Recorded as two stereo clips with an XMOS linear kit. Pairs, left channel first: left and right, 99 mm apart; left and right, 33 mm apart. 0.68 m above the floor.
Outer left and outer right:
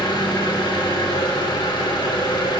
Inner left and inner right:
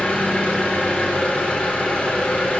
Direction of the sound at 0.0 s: 50° left (ahead or behind).